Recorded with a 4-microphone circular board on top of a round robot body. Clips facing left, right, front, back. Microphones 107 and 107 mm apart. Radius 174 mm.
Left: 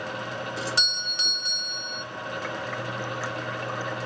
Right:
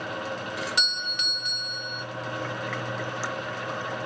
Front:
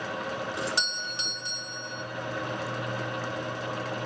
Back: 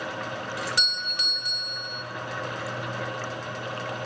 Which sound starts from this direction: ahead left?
A doorbell, at 0.6 s.